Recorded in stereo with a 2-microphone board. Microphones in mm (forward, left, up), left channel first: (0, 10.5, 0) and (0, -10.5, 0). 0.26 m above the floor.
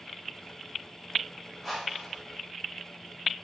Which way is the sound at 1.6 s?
20° right (ahead or behind).